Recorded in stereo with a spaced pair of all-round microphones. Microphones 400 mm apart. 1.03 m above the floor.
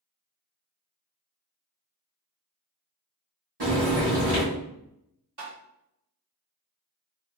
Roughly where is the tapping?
Right.